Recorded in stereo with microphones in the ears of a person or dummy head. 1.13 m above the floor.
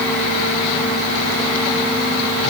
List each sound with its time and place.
Only background noise.